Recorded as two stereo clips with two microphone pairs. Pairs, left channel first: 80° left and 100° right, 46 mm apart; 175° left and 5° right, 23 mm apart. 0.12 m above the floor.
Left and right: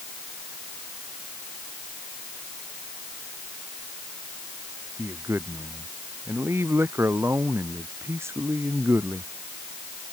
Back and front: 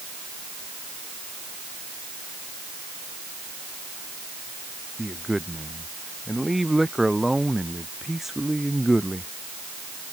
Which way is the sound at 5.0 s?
90° right.